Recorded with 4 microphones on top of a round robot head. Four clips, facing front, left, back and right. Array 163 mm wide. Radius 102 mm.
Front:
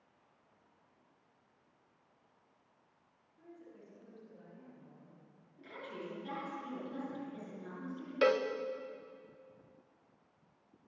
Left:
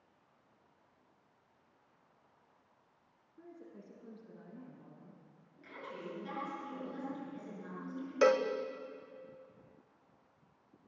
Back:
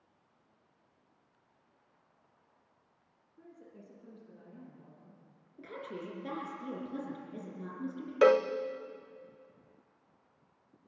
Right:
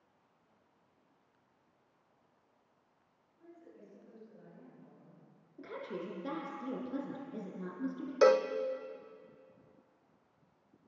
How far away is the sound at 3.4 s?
About 7.5 m.